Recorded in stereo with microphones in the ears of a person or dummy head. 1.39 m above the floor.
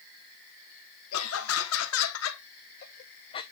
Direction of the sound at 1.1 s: 85° left.